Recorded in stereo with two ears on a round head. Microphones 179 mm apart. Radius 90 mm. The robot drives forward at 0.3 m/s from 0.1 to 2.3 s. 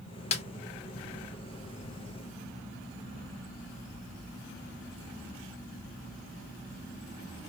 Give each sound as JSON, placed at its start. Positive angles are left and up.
{"t": 0.3, "sound": "a snare drum", "side_deg": 35, "distance_m": 0.7}